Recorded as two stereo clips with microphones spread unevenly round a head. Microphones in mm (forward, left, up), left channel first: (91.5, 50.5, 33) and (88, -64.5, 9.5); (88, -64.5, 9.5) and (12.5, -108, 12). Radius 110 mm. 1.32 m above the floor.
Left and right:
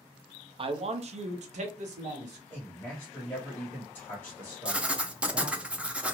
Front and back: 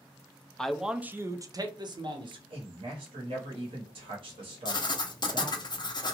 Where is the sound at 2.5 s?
170° left, 0.9 m.